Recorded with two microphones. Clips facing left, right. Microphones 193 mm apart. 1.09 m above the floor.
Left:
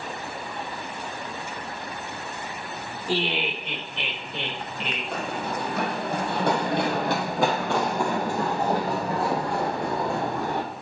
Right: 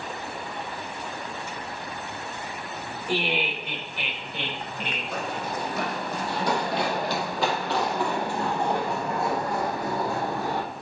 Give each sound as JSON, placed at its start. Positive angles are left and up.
{"t": 3.1, "sound": "laughter", "side_deg": 35, "distance_m": 2.5}
{"t": 5.1, "sound": "running footsteps", "side_deg": 65, "distance_m": 2.5}